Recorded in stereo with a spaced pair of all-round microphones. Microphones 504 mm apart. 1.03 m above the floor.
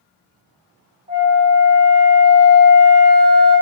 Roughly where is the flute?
Left.